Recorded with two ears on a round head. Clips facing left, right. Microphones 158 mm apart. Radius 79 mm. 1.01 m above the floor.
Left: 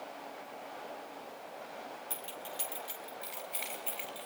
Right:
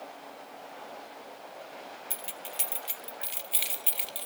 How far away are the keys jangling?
About 2 m.